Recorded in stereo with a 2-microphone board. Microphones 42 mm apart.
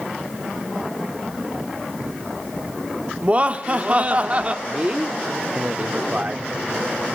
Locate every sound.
3.2 s laughter: 30° right (ahead or behind), 1.1 m
4.7 s a man speaking: 25° right (ahead or behind), 1.0 m